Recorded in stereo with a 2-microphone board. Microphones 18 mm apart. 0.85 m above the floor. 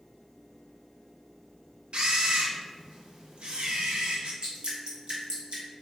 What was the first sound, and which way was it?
A camera shutter, 70° right (ahead or behind).